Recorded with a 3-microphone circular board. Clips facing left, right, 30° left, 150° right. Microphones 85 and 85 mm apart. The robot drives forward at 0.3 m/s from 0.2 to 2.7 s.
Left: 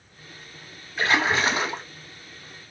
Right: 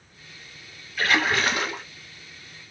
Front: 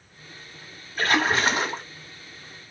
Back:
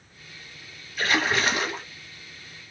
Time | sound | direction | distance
1.0 | a splash | 40° left | 1.0 m